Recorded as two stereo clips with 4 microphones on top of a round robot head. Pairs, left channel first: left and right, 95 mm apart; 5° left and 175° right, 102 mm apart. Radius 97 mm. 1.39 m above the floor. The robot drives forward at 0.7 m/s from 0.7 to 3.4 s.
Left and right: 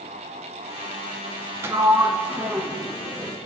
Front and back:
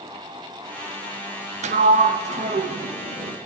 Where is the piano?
I don't hear a piano.